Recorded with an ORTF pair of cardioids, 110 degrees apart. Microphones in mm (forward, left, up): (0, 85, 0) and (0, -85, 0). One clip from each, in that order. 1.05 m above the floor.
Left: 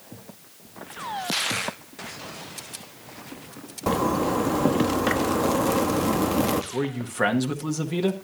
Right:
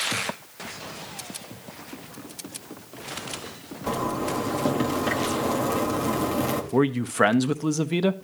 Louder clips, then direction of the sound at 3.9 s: Left 4 dB; 40° left.